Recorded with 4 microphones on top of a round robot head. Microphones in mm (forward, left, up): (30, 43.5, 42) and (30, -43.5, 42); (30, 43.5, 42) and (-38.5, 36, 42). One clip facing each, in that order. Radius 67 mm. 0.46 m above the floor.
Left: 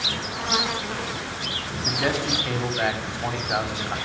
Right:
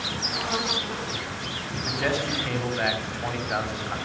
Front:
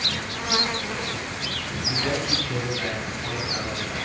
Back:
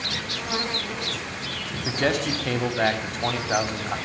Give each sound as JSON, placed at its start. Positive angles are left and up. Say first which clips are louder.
{"t": 1.9, "sound": "a man speaking", "louder": "left 2 dB, back 4 dB", "azimuth_deg": 170, "distance_m": 3.5}